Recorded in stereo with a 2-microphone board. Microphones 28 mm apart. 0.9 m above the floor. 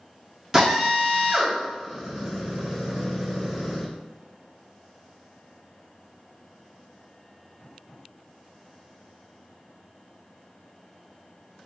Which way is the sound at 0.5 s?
15° right (ahead or behind).